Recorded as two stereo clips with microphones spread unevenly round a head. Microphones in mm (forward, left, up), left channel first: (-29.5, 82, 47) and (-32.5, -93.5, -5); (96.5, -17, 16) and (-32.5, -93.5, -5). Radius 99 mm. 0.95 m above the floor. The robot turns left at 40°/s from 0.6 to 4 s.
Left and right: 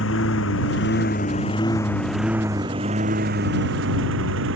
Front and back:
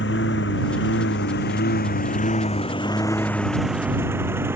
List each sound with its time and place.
0.0 s a lawn mower: 60° left; by 4.6 s 75° right